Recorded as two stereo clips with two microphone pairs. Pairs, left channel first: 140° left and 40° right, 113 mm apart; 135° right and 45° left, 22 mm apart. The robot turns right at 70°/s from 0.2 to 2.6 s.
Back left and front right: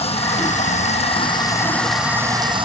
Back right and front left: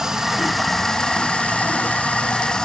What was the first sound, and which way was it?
Running water, 110° left.